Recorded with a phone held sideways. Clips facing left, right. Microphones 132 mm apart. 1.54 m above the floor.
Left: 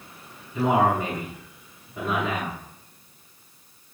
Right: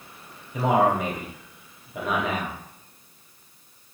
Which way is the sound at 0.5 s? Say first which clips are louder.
Even; 85° right.